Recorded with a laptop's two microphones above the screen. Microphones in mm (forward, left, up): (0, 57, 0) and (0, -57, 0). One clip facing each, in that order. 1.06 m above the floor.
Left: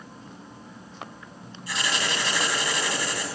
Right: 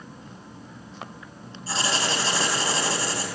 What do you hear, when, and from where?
1.7 s writing: 35° right (ahead or behind), 3 m